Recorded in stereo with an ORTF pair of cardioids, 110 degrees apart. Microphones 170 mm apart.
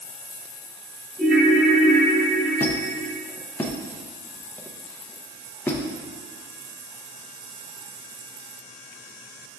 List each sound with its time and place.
1.2 s a ringtone: 5° right, 1.4 m
2.6 s a squeak: 10° left, 0.6 m